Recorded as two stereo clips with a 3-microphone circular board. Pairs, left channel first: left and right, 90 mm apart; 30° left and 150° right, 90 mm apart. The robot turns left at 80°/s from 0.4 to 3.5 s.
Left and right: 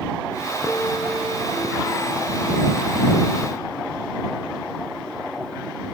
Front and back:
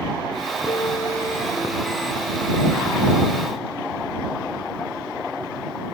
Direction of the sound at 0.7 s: 25° left.